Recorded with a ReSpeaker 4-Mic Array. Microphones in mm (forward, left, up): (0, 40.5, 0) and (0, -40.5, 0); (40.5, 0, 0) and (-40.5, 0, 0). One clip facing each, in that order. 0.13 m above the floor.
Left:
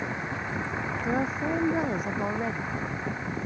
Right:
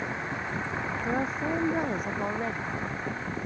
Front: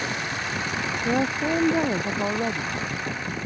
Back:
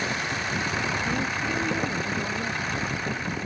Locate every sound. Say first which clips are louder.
1.0 s a woman speaking: left 2 dB, front 4 dB; 5° left